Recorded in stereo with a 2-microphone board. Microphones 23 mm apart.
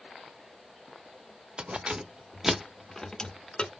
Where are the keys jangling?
50° right (ahead or behind), 0.8 m; by 3.8 s 50° left (ahead or behind), 0.9 m.